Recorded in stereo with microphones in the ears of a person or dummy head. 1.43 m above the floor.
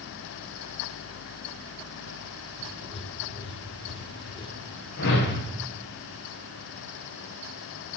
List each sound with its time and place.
2.6 s writing: 25° left (ahead or behind), 0.6 m
5.0 s a whoosh: 60° left (ahead or behind), 1.2 m